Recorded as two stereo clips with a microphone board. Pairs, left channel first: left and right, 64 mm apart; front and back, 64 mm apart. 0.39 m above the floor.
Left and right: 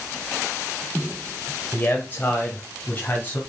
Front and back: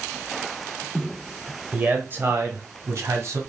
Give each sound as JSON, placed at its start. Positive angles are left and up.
{"t": 1.7, "sound": "a man speaking", "azimuth_deg": 130, "distance_m": 1.5}